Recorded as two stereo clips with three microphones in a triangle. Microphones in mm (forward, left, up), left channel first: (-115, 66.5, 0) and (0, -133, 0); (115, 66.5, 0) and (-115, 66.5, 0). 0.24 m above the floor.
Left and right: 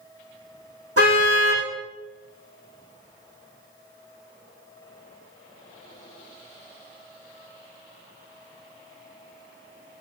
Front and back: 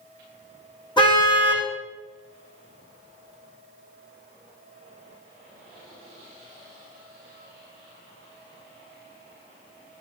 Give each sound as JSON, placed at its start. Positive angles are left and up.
{"t": 1.0, "sound": "a car horn", "azimuth_deg": -70, "distance_m": 4.0}